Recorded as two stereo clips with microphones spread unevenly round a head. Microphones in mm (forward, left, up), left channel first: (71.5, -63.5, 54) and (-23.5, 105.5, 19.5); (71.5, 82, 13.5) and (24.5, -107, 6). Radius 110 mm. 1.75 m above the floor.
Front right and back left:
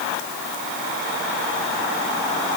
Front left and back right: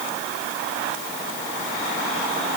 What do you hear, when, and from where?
Only background noise.